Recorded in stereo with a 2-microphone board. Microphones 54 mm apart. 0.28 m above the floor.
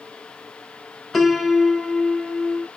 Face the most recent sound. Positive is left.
turn(degrees=0)  # may be behind; listen again after turning